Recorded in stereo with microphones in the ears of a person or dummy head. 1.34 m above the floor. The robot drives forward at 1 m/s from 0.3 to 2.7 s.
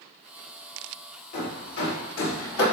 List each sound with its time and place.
1.3 s hammering: 60° left (ahead or behind), 3.5 m; by 2.6 s 85° left, 3 m